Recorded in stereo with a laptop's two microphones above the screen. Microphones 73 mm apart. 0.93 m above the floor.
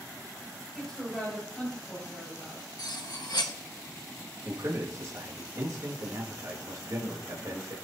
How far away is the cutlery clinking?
About 1.0 m.